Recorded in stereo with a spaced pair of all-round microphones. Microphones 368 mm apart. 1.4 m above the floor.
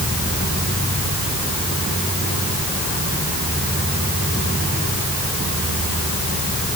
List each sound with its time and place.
Only background noise.